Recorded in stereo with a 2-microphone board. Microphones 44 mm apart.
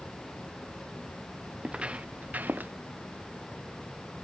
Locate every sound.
1.6 s footsteps: 20° right (ahead or behind); by 2.7 s 45° right (ahead or behind)